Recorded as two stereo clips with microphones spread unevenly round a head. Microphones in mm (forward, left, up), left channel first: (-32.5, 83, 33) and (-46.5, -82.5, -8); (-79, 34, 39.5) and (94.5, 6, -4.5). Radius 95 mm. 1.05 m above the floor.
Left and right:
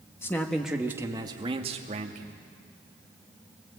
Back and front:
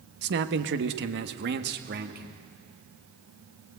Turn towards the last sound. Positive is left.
turn(degrees=-50)